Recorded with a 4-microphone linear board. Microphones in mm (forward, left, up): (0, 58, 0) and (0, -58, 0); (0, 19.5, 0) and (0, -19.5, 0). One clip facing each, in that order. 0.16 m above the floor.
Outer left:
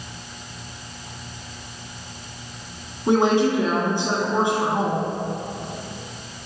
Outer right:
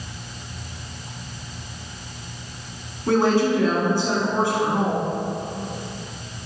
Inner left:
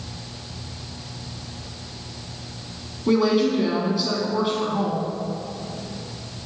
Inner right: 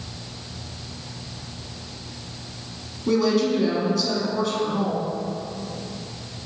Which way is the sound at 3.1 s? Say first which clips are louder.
Outer left 1 dB, inner left 1 dB; 20° left (ahead or behind).